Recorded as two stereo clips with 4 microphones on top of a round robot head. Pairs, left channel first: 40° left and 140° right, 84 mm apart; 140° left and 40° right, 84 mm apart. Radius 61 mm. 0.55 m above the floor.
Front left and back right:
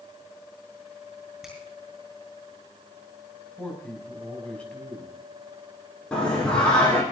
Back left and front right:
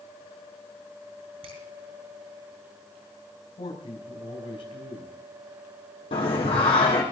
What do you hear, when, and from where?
1.4 s a finger snap: 50° right, 7 m
3.6 s a man speaking: 120° left, 5 m
6.1 s singing: 120° left, 6.5 m